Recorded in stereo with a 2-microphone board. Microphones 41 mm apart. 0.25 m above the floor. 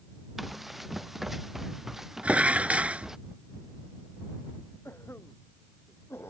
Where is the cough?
75° left (ahead or behind).